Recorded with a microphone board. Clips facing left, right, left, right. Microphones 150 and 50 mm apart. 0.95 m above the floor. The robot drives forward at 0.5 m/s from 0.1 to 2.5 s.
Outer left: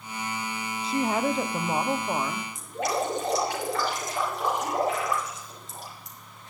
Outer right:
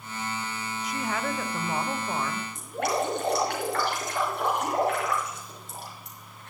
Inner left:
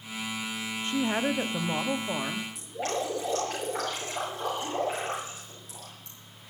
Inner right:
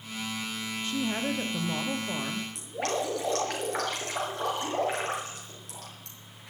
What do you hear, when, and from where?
0.8 s a woman speaking: 30° left (ahead or behind), 0.6 m; by 2.5 s 15° left (ahead or behind), 1.0 m
2.5 s dripping: 65° right (ahead or behind), 5.5 m